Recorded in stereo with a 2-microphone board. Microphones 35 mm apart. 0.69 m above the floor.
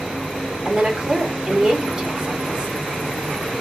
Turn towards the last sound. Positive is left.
turn(degrees=-25)  # may be behind; listen again after turning